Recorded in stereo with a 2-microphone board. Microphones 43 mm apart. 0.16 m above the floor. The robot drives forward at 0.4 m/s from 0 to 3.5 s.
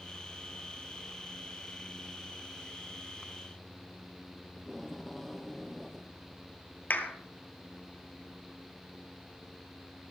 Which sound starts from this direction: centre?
Tape being pulled, at 4.6 s.